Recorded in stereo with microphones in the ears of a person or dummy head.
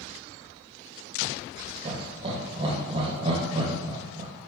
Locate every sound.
1.9 s laughter: 30° right (ahead or behind), 0.7 m